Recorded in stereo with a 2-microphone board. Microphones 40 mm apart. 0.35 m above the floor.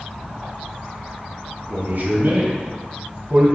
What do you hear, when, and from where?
1.7 s a man speaking: 50° right (ahead or behind), 1.4 m; by 3.5 s 65° right (ahead or behind), 2.5 m